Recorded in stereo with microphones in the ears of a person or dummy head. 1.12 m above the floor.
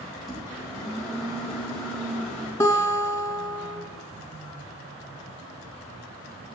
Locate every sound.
0.2 s a microwave: 5° left (ahead or behind), 5 m
2.6 s a guitar: 15° left (ahead or behind), 2.5 m